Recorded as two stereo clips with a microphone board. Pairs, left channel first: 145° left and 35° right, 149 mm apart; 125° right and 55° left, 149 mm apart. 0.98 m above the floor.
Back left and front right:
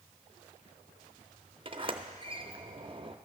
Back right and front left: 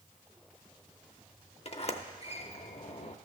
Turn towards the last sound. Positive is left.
turn(degrees=-85)